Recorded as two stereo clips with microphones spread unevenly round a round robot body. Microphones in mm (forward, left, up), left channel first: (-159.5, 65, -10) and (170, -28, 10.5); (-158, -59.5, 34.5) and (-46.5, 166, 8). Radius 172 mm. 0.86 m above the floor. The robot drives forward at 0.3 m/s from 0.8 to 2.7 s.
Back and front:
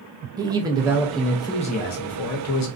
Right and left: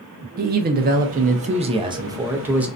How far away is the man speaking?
About 0.5 m.